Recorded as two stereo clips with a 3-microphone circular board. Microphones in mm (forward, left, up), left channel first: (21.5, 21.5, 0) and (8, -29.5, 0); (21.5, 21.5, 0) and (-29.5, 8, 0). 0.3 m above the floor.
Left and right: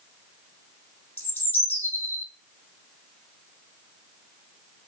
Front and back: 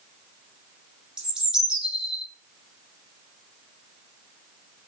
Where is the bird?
120° left, 1.0 m.